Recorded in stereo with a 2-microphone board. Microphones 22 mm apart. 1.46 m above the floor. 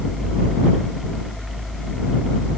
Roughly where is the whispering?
No whispering in this recording.